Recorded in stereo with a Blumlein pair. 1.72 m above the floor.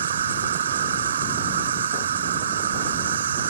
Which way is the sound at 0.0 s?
65° right.